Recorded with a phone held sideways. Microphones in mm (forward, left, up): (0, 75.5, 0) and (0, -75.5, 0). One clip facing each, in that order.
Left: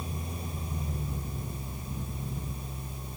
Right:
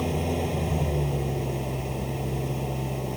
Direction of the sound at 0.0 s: 75° right (ahead or behind).